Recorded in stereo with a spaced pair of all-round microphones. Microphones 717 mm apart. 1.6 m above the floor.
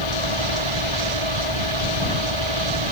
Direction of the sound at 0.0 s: 40° right (ahead or behind).